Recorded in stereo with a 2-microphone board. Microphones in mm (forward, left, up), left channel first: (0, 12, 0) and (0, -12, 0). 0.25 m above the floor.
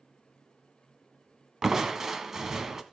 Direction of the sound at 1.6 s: 20° right (ahead or behind).